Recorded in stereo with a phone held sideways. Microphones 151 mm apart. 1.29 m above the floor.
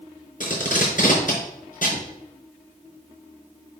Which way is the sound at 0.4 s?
60° left (ahead or behind).